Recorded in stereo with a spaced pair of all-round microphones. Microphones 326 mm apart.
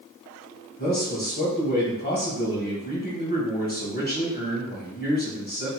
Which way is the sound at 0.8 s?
30° left (ahead or behind).